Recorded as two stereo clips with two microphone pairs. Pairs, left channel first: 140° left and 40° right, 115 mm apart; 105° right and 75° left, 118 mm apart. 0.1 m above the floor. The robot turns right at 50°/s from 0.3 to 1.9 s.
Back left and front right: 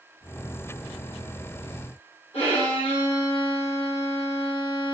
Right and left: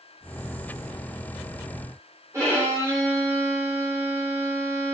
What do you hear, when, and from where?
2.3 s a violin: 135° left, 5 m